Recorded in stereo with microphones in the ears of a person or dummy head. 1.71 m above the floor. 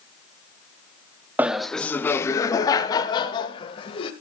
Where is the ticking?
No ticking in this recording.